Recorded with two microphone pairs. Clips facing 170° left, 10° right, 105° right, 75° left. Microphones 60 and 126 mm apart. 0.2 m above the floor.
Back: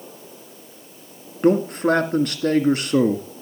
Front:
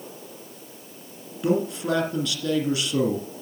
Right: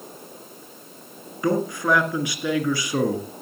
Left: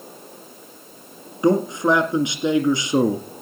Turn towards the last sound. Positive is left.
turn(degrees=140)